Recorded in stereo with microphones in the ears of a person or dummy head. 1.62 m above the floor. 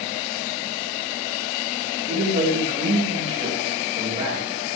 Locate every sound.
2.1 s a man speaking: 30° right (ahead or behind), 9.5 m; by 4.8 s 15° right (ahead or behind), 10 m